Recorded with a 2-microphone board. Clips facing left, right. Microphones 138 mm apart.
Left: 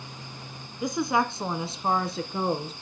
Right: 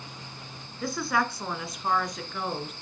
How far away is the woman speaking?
About 1.4 m.